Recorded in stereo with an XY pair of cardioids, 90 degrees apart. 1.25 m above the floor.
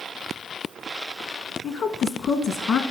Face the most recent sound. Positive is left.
turn(degrees=70)